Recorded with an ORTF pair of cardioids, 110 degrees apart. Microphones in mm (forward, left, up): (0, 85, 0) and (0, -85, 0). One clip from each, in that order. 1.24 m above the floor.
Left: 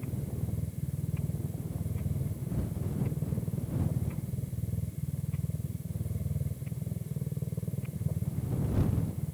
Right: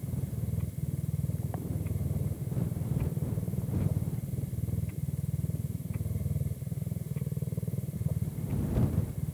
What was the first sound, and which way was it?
A machine running, 10° right.